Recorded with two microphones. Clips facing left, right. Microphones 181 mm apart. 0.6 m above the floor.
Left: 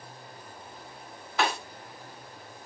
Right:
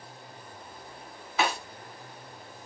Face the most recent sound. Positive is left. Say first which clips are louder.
# even
turn(degrees=-5)  # may be behind; listen again after turning